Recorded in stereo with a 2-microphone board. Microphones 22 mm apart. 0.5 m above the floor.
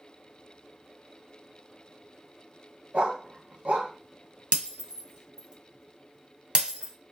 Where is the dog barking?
85° right, 1.2 m.